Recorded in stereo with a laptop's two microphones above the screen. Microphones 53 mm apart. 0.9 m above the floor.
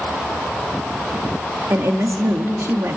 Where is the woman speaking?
55° right (ahead or behind), 1.9 m.